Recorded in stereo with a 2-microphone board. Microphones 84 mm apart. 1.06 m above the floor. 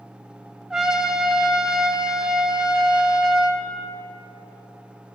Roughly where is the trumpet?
Centre.